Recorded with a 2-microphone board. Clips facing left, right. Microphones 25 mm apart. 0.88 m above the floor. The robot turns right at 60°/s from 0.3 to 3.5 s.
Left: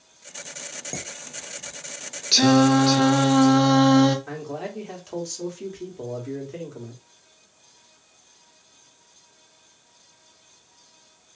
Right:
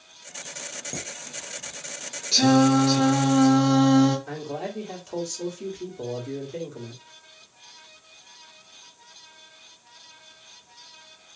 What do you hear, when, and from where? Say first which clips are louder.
0.9 s dishes clattering: even; 25° left (ahead or behind), 0.8 m; by 1.7 s 25° right (ahead or behind), 0.8 m
2.3 s singing: left 2 dB; 55° left, 0.8 m; by 4.2 s 125° left, 0.8 m
4.3 s a man speaking: even; 20° left (ahead or behind), 1.4 m